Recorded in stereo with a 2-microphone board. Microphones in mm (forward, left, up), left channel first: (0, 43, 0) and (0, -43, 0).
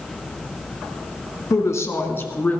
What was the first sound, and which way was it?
A woman speaking, 40° left (ahead or behind).